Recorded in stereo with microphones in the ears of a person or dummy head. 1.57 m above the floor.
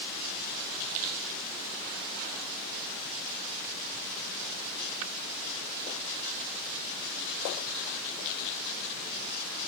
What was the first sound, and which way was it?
Only background noise.